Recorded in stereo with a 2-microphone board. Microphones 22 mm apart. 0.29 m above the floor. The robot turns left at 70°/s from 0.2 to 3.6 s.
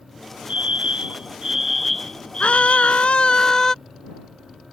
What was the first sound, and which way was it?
A fire alarm, 95° right.